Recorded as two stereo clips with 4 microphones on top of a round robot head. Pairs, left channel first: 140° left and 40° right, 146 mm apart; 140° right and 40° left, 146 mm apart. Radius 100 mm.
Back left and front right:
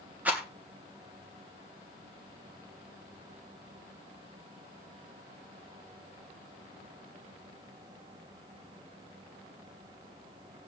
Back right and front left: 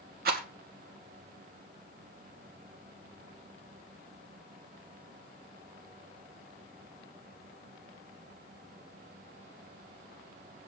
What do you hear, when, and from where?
0.2 s a rattle: 35° left, 2.5 m